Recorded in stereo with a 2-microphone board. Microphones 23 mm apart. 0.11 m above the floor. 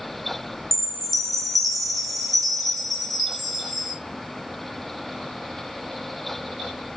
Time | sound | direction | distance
0.7 | a chime | 5° left (ahead or behind) | 3.5 m